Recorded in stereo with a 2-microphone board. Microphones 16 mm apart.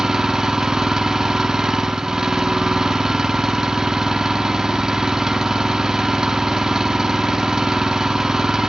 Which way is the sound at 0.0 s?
45° right (ahead or behind).